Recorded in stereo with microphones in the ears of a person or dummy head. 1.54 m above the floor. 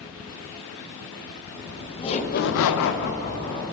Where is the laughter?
20° left (ahead or behind), 1.5 m.